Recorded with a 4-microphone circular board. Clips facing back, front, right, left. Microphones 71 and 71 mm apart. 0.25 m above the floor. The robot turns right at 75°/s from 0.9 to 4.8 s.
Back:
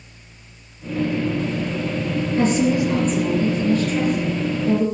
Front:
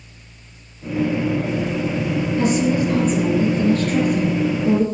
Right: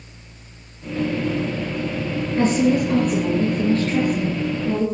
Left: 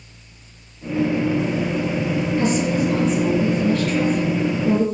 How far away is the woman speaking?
About 2.5 m.